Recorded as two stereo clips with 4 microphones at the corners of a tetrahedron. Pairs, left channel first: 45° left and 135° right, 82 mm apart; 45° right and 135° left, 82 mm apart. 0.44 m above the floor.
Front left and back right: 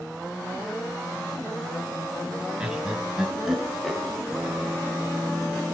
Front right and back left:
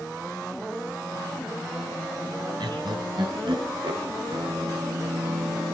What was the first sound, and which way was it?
Laughter, 145° left.